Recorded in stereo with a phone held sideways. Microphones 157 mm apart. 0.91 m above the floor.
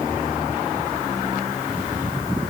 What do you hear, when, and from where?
Only background noise.